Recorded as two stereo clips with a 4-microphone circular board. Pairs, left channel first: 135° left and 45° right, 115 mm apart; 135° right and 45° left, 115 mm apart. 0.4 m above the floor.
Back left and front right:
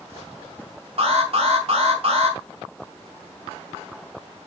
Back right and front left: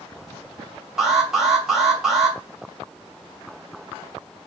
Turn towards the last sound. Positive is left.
turn(degrees=-40)